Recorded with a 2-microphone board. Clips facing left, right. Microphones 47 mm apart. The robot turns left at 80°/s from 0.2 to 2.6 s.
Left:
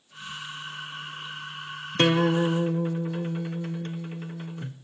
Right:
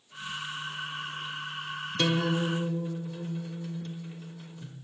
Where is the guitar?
125° left, 0.6 m; by 4.7 s 75° left, 0.6 m.